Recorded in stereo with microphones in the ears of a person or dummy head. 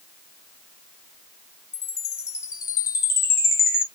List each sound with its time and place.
1.7 s a chime: 20° left (ahead or behind), 0.6 m